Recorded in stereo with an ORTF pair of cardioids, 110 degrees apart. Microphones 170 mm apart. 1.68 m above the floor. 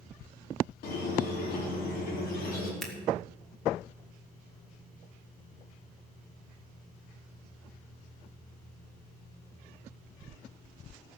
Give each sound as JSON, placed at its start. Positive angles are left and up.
{"t": 0.8, "sound": "a squeak", "azimuth_deg": 65, "distance_m": 3.0}
{"t": 2.8, "sound": "scissors", "azimuth_deg": 0, "distance_m": 2.0}